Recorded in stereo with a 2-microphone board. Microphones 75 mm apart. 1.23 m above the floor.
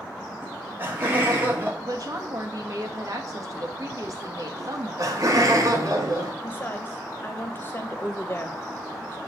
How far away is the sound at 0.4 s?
About 2.5 m.